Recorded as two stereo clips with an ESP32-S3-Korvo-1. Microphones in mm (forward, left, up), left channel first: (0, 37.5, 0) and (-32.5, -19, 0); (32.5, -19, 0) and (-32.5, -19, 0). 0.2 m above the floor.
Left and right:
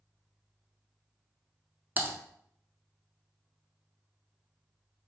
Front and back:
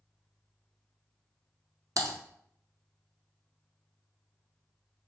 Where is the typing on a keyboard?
Straight behind, 0.7 m.